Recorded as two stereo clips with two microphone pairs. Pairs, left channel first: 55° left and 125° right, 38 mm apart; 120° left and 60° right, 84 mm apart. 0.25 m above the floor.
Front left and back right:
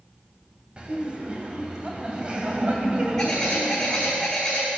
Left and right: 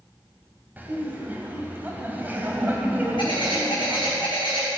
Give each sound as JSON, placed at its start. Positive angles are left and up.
{"t": 0.8, "sound": "laughter", "azimuth_deg": -105, "distance_m": 1.3}
{"t": 3.2, "sound": "a bird", "azimuth_deg": 135, "distance_m": 2.5}